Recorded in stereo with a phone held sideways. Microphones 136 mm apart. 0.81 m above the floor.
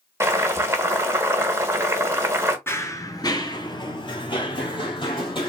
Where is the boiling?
20° right (ahead or behind), 1.1 m.